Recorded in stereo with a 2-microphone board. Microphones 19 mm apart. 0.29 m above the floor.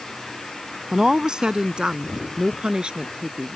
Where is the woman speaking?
35° right (ahead or behind); by 3.6 s 60° right (ahead or behind).